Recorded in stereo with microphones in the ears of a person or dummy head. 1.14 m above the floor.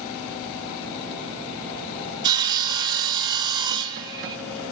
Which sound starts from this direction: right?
Sawing, at 2.2 s.